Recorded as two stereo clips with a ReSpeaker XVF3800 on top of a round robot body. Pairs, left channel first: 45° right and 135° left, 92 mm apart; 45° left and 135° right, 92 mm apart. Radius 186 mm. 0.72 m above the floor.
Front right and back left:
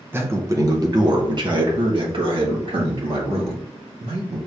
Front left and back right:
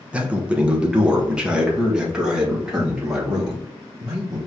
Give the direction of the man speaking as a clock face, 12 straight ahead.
7 o'clock.